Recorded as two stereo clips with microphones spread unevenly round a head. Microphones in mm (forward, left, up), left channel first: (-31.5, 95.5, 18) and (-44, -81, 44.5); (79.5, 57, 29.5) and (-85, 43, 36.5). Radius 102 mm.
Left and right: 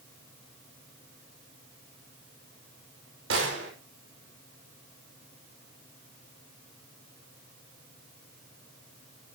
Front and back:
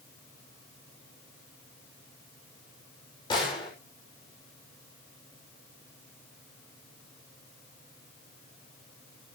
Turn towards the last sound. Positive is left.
turn(degrees=-65)